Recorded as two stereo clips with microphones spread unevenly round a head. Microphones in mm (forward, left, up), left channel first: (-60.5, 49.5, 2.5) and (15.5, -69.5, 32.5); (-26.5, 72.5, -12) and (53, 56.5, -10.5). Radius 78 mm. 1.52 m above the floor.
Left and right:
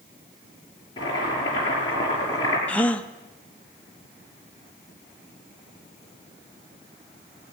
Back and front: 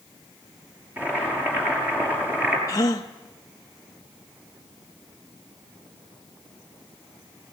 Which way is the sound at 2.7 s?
150° right.